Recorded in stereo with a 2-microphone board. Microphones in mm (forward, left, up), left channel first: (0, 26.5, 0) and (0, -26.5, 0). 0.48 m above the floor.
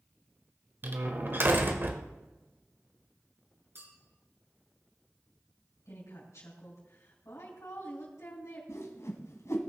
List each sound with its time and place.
0.8 s a door slam: 45° right (ahead or behind), 1.2 m
3.8 s a clink: 55° right (ahead or behind), 3.5 m
5.8 s a woman speaking: 70° left (ahead or behind), 4 m
8.7 s a whoosh: 70° left (ahead or behind), 1.4 m